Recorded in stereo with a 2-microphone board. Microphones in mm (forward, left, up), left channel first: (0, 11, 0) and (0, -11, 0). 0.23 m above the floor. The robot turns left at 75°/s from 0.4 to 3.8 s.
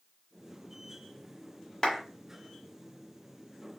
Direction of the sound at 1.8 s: 35° left (ahead or behind).